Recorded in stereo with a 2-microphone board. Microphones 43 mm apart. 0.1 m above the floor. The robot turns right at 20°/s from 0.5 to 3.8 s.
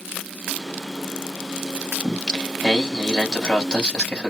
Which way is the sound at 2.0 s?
5° right.